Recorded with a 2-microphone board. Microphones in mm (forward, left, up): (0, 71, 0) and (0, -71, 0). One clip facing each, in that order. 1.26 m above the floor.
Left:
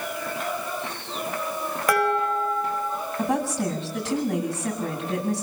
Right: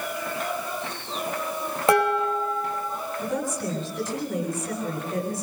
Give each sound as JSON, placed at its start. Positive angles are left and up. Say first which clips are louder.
{"t": 1.9, "sound": "dishes clattering", "louder": "right 2 dB", "side_deg": -25, "distance_m": 4.5}
{"t": 3.2, "sound": "a woman speaking", "louder": "left 4 dB", "side_deg": 85, "distance_m": 9.0}